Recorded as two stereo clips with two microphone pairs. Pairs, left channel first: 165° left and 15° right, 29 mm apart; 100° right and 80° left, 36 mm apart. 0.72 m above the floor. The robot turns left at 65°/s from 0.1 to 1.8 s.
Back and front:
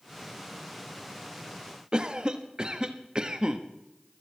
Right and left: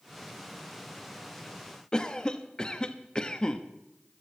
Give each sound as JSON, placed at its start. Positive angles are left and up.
{"t": 1.9, "sound": "a cough", "azimuth_deg": -50, "distance_m": 0.8}